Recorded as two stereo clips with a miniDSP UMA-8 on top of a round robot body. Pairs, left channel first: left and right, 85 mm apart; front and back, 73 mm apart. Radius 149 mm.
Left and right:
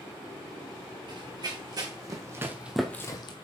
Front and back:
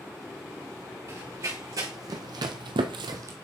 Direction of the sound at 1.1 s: 130° right.